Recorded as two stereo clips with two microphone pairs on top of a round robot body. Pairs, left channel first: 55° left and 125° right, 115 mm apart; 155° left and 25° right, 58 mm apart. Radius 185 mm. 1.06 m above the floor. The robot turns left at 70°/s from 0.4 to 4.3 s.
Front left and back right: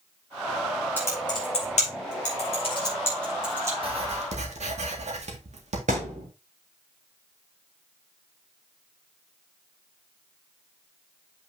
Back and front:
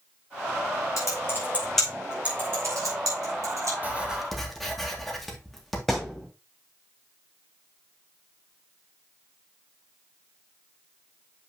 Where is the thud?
110° right, 0.7 m.